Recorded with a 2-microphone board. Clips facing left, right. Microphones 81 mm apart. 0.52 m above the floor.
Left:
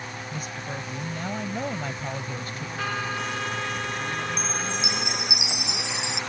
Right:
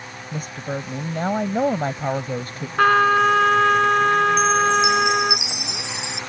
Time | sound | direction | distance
0.3 | a woman speaking | 45° right (ahead or behind) | ?
2.8 | a trumpet | 60° right (ahead or behind) | ?
4.4 | a chime | 75° left (ahead or behind) | ?